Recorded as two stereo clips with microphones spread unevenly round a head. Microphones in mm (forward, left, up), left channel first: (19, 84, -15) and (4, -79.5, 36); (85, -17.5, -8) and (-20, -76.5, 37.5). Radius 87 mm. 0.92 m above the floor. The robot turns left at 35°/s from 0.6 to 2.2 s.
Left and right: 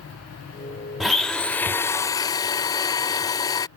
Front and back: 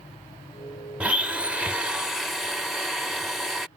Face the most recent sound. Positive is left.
turn(degrees=170)